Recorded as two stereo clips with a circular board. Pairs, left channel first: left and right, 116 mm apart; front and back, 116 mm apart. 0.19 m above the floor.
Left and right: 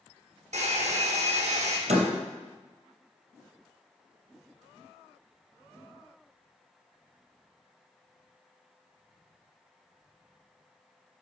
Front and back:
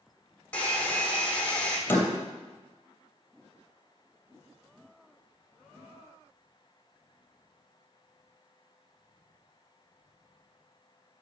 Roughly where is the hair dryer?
Right.